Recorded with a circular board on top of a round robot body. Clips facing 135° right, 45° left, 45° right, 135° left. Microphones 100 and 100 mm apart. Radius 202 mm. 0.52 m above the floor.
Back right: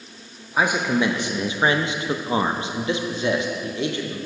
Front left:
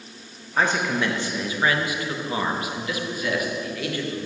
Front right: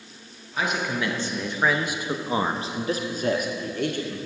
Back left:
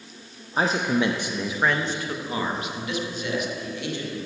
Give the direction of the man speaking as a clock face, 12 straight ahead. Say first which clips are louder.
Back right 2 dB, back left 4 dB; 7 o'clock.